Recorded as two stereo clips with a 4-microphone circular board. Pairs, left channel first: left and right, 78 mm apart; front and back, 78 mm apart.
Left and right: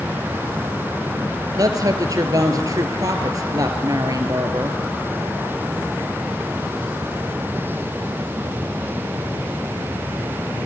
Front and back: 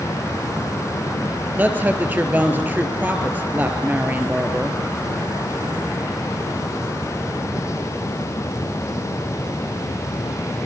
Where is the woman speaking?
115° right, 2.5 m.